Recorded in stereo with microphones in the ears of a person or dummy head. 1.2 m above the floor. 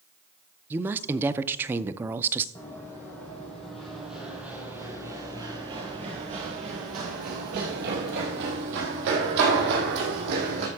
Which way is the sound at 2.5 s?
15° left (ahead or behind).